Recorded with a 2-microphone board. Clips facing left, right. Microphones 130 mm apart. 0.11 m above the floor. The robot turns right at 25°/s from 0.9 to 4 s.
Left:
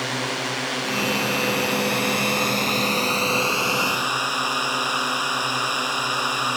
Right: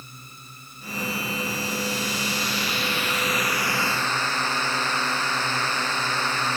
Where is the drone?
90° left; by 6.6 s 170° left.